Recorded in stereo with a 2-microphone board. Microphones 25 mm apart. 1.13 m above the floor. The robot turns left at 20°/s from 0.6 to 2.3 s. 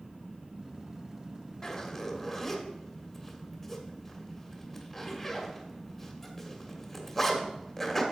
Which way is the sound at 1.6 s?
20° left (ahead or behind).